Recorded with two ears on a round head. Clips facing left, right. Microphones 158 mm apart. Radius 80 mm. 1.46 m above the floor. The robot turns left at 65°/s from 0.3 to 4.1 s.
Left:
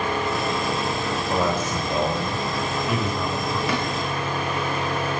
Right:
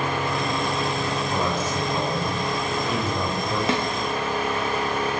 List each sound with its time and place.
1.3 s a man speaking: 110° left, 9 m; by 3.6 s 40° right, 9 m
3.7 s a snare drum: 25° right (ahead or behind), 5.5 m; by 3.9 s 15° right (ahead or behind), 5.5 m